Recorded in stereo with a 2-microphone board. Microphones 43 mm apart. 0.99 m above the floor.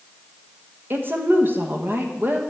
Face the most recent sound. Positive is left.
turn(degrees=-50)  # may be behind; listen again after turning